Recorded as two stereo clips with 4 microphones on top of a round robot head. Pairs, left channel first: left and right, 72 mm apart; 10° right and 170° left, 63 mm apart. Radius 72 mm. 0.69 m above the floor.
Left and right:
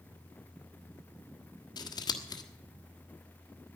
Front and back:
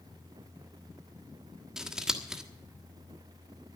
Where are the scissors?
90° left, 1.5 m.